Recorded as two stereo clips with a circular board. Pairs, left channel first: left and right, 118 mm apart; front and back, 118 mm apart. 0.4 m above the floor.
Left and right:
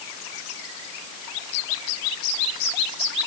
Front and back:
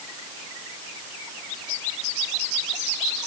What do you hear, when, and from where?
Only background noise.